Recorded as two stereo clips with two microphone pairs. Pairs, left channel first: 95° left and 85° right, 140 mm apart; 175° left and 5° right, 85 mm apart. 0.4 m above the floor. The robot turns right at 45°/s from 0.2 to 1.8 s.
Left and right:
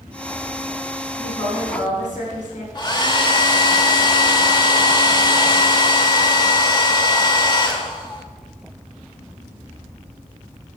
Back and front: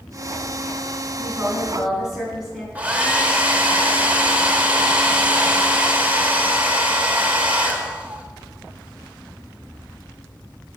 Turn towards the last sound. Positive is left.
turn(degrees=60)